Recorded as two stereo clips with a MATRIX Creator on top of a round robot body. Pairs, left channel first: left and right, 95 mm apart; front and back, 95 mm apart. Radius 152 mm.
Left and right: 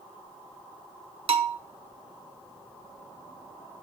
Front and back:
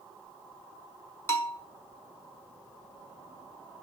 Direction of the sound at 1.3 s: 65° right.